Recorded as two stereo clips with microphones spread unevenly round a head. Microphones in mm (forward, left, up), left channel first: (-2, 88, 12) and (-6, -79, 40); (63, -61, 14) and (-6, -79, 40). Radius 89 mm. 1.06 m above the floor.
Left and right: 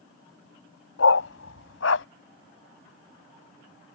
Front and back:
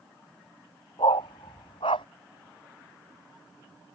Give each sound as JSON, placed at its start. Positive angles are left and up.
{"t": 1.0, "sound": "a dog barking", "azimuth_deg": 75}